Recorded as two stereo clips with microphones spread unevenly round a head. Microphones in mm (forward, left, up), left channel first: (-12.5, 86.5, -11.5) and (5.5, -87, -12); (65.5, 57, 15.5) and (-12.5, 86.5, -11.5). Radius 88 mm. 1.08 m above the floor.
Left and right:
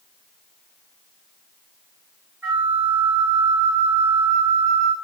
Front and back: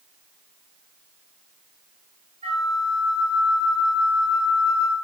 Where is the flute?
160° right, 9.5 m.